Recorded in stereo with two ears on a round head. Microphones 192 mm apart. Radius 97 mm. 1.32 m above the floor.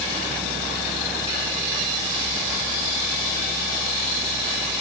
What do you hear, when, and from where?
Only background noise.